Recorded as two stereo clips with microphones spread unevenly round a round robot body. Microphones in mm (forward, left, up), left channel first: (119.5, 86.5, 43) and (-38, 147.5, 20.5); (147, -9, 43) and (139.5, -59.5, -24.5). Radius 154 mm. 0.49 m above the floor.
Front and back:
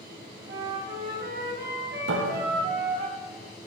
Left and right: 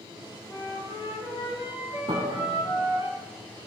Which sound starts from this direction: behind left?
A flute, at 0.5 s.